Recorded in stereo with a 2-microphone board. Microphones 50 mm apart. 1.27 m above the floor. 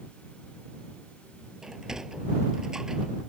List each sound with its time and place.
1.6 s a sliding door: 15° right (ahead or behind)